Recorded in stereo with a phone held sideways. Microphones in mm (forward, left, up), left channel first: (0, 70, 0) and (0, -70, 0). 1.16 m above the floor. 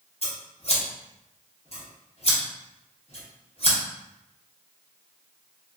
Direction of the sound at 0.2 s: 45° left (ahead or behind).